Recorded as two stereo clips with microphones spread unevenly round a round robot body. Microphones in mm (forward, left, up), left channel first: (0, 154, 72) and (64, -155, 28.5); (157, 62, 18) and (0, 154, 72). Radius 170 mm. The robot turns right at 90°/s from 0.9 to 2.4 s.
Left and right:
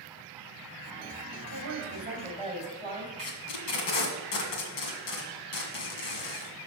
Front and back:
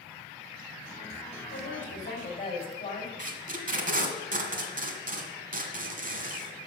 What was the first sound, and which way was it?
A woman speaking, 50° right.